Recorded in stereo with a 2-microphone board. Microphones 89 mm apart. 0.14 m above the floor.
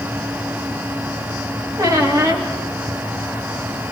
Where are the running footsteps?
I don't hear running footsteps.